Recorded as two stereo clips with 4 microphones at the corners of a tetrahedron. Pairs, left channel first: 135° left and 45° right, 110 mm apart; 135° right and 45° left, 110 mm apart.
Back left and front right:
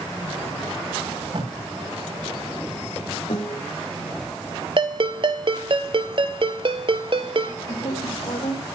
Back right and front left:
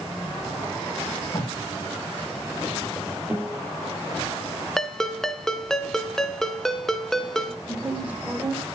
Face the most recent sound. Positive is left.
turn(degrees=120)